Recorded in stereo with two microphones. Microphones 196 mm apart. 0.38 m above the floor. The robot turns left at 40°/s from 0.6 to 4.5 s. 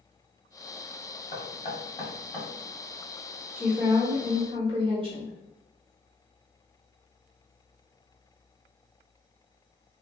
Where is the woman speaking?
15° right, 1.0 m; by 5.3 s 55° right, 1.0 m.